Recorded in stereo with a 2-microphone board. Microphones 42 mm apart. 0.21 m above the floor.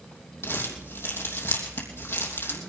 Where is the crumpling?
60° left (ahead or behind), 3 m.